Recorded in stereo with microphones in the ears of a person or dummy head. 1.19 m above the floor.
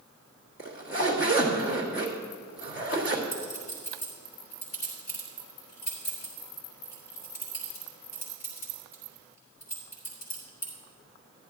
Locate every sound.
0.6 s a zipper: 45° left (ahead or behind), 1.4 m
3.3 s a clink: 50° left (ahead or behind), 3 m